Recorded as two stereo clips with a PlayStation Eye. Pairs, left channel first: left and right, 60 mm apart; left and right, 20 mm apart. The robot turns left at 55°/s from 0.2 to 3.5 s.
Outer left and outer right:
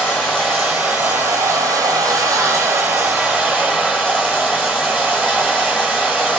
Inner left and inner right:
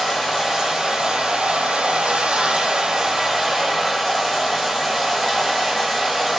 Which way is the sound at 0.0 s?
10° left.